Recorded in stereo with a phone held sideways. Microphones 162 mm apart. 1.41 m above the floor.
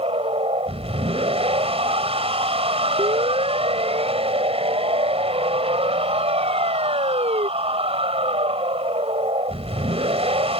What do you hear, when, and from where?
0.0 s a machine running: 40° right (ahead or behind)
3.0 s a siren: 35° right (ahead or behind); by 7.5 s 40° right (ahead or behind)